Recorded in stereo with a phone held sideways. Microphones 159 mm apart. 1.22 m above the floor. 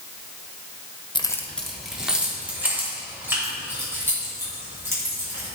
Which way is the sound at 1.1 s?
30° left (ahead or behind).